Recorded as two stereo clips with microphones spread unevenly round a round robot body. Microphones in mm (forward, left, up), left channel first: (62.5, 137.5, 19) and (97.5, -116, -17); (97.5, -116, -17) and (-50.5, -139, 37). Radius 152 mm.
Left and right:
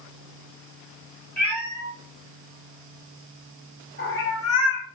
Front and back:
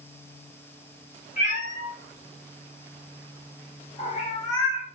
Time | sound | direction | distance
1.4 | a cat meowing | 10° left | 2.5 m